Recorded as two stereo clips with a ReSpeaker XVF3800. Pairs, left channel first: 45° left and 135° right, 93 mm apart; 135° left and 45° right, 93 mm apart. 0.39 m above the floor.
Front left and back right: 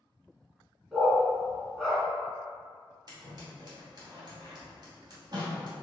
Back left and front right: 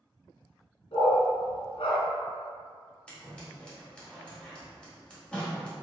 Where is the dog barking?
140° left, 1.8 m.